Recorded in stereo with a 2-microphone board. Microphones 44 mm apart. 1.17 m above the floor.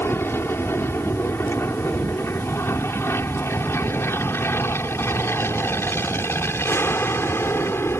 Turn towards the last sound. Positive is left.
turn(degrees=70)  # may be behind; listen again after turning